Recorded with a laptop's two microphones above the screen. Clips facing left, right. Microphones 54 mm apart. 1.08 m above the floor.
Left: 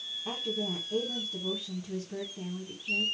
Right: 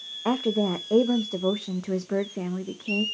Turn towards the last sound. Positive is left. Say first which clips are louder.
# right 11 dB
turn(degrees=-80)